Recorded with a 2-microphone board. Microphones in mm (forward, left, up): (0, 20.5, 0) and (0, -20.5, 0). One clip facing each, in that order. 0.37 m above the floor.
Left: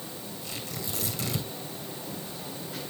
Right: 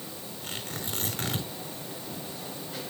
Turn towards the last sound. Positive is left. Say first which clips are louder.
# right 2 dB
turn(degrees=-55)  # may be behind; listen again after turning